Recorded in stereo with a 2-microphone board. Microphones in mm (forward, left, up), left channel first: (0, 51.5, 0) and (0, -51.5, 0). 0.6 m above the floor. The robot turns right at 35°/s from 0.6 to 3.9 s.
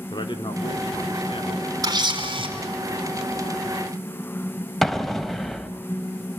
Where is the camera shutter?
35° right (ahead or behind), 4 m; by 2.5 s 60° right (ahead or behind), 4 m.